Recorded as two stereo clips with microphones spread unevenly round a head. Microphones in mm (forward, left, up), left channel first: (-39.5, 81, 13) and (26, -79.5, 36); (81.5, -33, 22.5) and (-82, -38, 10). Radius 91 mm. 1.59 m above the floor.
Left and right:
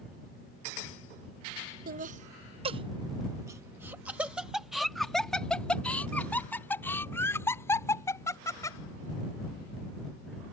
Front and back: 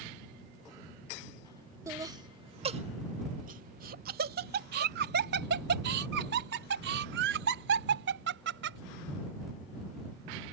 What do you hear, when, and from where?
1.9 s laughter: 105° right; by 8.8 s 170° right